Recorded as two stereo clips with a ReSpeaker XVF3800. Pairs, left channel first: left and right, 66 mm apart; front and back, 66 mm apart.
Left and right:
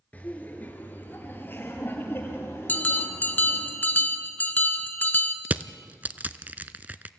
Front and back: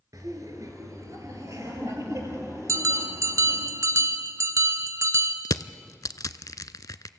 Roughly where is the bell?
Behind left.